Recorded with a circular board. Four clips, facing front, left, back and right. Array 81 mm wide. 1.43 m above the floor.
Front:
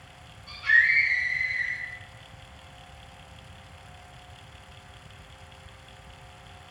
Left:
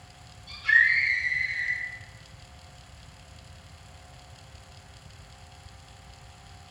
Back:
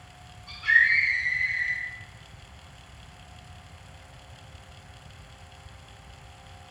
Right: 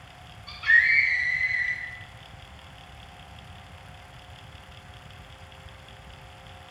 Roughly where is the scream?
Right.